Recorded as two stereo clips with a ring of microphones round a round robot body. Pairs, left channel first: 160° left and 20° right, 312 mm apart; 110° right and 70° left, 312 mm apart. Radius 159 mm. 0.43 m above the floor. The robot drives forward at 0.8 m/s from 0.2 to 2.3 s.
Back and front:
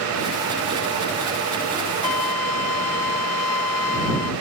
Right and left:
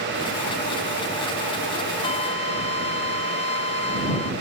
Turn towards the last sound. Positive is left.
turn(degrees=175)